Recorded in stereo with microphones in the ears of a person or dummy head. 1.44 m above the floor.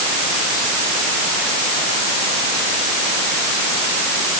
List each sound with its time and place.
Only background noise.